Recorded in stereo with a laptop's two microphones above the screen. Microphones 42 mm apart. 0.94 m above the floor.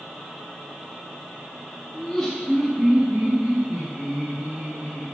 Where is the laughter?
25° left (ahead or behind), 0.7 m; by 5.0 s 45° right (ahead or behind), 1.7 m.